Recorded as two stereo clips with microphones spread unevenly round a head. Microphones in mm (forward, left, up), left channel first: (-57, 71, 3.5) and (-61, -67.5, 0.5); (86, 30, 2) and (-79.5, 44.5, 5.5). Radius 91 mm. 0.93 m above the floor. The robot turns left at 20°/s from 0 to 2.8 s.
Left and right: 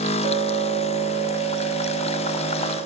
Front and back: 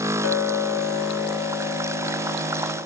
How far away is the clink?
About 1.5 m.